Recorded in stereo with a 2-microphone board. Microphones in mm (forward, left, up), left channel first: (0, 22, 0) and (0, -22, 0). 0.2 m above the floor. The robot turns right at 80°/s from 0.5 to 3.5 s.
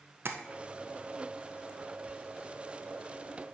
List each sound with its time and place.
0.2 s tapping: 65° right (ahead or behind), 0.6 m